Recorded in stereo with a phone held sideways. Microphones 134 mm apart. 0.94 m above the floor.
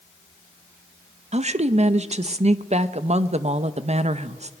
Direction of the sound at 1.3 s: 55° right (ahead or behind).